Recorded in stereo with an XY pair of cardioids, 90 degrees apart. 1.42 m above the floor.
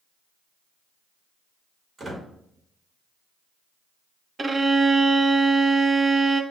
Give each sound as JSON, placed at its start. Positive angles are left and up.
{"t": 2.0, "sound": "a squeak", "azimuth_deg": -45, "distance_m": 2.0}
{"t": 4.4, "sound": "a violin", "azimuth_deg": -30, "distance_m": 0.5}